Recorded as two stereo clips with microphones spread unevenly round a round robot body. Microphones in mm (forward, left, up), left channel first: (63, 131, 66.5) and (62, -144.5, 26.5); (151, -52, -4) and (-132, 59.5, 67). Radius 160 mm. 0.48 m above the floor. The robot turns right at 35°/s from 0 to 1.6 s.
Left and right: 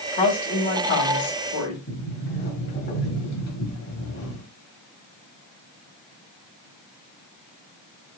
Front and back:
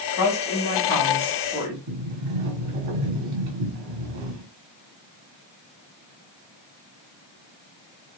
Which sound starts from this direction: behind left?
A sliding door, at 1.9 s.